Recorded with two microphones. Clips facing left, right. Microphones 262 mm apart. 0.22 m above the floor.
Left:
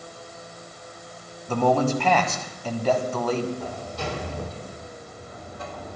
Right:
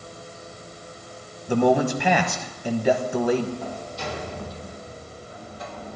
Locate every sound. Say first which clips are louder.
1.5 s a man speaking: right 2 dB; 15° right (ahead or behind), 1.1 m
3.6 s a sliding door: left 1 dB; 60° left (ahead or behind), 3.5 m